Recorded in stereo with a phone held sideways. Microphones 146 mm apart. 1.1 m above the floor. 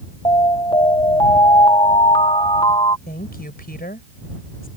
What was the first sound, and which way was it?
An alarm, 35° left (ahead or behind).